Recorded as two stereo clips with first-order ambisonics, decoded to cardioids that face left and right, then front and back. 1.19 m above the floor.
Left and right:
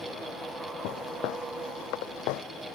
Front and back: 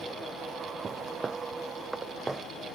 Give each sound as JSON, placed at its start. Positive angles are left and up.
{"t": 0.8, "sound": "footsteps", "azimuth_deg": 110}